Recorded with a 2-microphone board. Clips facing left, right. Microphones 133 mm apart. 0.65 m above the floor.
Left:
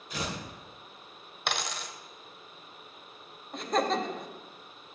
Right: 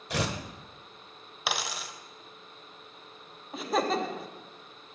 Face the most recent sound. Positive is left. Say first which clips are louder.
# even
turn(degrees=-5)  # may be behind; listen again after turning